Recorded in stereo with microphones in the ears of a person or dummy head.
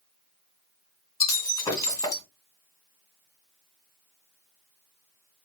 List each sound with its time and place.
1.2 s breaking glass: 20° left (ahead or behind), 3 m